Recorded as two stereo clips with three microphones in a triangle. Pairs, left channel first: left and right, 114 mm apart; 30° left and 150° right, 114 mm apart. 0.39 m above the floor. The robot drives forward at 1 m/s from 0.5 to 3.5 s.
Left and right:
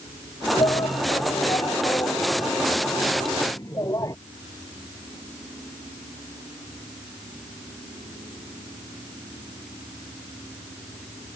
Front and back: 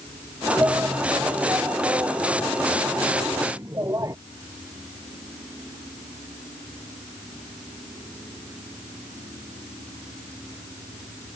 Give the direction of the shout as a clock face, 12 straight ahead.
7 o'clock.